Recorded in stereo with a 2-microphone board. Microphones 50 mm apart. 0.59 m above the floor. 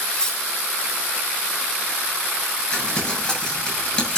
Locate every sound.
0.1 s cutlery clinking: 15° left (ahead or behind), 1.8 m
2.7 s crumpling: 20° left (ahead or behind), 7 m